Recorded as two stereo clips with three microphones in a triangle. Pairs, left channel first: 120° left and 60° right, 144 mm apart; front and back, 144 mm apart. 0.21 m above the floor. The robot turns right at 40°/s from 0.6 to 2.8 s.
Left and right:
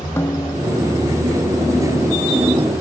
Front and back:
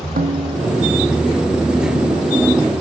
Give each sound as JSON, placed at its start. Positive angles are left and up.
{"t": 0.2, "sound": "a snare drum", "azimuth_deg": -170}